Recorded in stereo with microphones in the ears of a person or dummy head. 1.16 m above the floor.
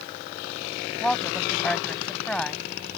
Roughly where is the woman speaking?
Centre.